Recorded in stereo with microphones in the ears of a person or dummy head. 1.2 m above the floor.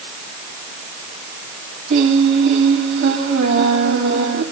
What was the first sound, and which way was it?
Singing, 60° right (ahead or behind).